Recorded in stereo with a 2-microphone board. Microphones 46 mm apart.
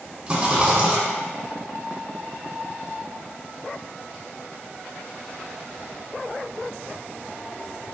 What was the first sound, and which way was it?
A rattle, 20° right (ahead or behind).